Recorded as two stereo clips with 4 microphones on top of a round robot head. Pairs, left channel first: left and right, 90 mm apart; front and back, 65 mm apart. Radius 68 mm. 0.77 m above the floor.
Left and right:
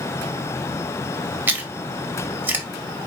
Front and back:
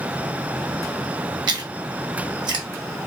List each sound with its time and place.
1.5 s chewing: 155° right, 0.5 m